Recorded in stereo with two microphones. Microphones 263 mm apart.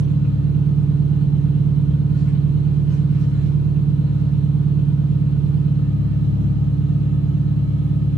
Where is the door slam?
I don't hear a door slam.